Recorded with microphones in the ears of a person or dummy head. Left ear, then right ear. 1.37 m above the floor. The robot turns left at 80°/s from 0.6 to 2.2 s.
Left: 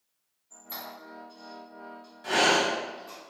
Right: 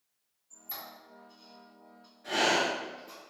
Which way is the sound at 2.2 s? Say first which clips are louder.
Left 4 dB; 55° left (ahead or behind).